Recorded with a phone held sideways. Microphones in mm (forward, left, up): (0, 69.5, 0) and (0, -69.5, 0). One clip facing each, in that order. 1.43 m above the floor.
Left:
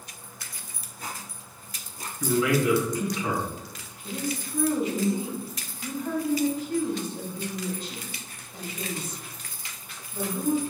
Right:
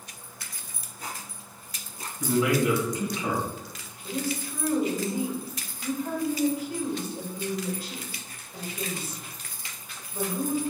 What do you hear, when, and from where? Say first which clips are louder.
2.2 s a man speaking: even; 25° right (ahead or behind), 1.8 m
4.0 s a woman speaking: right 1 dB; 10° right (ahead or behind), 1.7 m